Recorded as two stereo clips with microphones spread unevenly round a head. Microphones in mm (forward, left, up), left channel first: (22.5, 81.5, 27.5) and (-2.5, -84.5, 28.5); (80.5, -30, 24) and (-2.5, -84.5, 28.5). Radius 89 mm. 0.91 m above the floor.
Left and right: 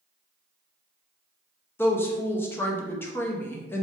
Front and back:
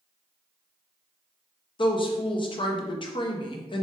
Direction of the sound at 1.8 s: 5° left.